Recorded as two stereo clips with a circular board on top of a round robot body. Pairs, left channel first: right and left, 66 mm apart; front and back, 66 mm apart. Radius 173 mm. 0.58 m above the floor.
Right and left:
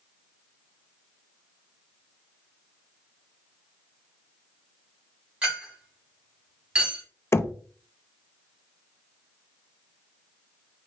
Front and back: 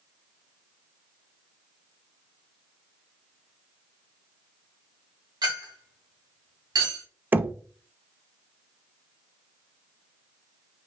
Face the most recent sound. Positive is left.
turn(degrees=-125)